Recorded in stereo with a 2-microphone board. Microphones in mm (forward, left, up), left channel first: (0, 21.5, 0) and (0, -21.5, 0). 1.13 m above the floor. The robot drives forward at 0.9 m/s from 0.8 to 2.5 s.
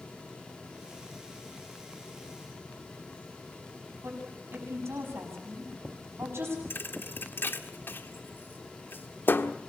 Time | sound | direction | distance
4.0 | a woman speaking | 80° right | 7.5 m
6.7 | a thud | 55° left (ahead or behind) | 1.4 m